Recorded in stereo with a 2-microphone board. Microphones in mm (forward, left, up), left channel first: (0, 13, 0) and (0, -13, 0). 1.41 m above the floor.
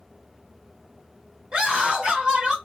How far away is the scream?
About 1.1 m.